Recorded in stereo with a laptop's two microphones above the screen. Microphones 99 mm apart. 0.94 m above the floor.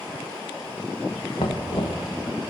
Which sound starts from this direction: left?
Knocking, at 1.4 s.